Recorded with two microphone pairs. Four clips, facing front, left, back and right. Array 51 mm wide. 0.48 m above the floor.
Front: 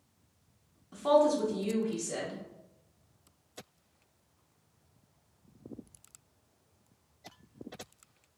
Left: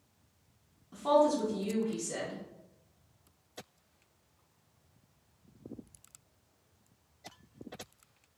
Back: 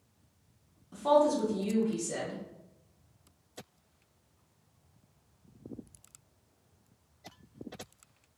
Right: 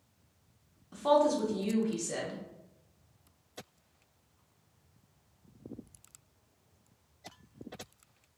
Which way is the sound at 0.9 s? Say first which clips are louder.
Even, even; 60° right.